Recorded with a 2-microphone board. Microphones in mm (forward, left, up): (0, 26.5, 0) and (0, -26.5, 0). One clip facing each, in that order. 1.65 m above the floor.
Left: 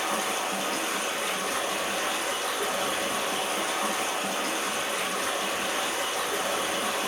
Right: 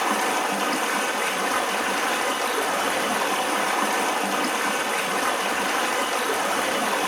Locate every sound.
0.0 s running water: 70° right (ahead or behind), 2.5 m